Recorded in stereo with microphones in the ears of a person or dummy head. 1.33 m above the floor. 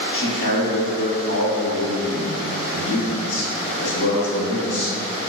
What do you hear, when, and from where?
0.1 s a man speaking: 80° left, 1.7 m